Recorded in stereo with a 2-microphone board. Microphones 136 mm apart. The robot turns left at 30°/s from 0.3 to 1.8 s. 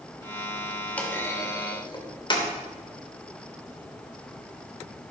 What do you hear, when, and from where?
1.0 s a clunk: 10° left (ahead or behind), 2.5 m; by 2.5 s 35° left (ahead or behind), 2.5 m